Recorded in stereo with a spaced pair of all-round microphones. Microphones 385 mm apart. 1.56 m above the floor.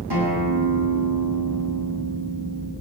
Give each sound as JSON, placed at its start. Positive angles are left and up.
{"t": 0.1, "sound": "a guitar", "side_deg": -80, "distance_m": 8.0}